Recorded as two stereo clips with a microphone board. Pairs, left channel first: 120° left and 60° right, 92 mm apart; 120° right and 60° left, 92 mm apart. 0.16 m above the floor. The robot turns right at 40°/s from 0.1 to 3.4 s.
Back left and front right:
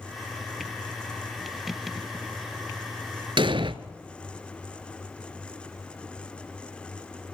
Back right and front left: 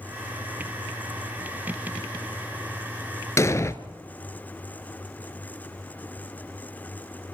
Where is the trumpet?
I don't hear a trumpet.